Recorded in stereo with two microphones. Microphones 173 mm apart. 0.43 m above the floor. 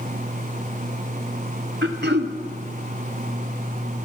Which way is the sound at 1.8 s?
80° right.